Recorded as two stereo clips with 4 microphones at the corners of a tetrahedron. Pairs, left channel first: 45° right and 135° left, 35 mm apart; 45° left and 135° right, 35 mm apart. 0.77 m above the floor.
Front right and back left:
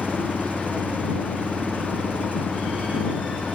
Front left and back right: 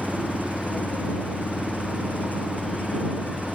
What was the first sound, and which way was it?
An engine running, 85° left.